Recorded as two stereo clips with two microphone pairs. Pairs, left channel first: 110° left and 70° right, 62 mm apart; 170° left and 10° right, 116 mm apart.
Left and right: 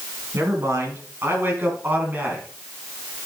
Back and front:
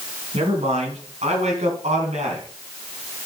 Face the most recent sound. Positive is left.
turn(degrees=-10)